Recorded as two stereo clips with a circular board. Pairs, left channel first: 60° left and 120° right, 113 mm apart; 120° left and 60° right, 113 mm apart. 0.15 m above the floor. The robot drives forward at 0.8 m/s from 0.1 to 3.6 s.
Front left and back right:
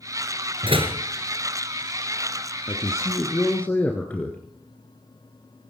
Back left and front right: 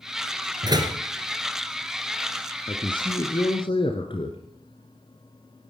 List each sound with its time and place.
0.6 s a door slam: 100° right, 2 m; by 1.0 s 110° right, 2 m
2.7 s a man speaking: 105° left, 1.4 m; by 4.4 s 135° left, 1.7 m